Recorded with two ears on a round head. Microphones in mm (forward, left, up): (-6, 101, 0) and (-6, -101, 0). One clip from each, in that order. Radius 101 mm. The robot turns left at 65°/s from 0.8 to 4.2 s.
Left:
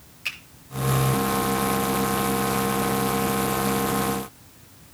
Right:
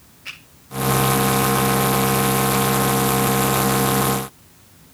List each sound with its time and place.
0.2 s a finger snap: 65° left (ahead or behind), 7 m